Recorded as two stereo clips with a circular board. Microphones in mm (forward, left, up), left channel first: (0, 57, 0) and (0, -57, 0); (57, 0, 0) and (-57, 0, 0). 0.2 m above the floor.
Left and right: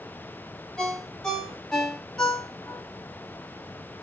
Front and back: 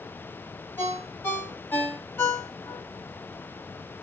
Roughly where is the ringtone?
Ahead.